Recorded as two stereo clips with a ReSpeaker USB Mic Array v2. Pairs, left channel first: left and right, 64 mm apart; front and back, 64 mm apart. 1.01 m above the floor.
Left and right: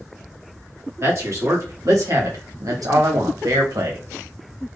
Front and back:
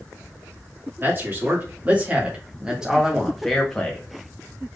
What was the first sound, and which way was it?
A man speaking, 130° right.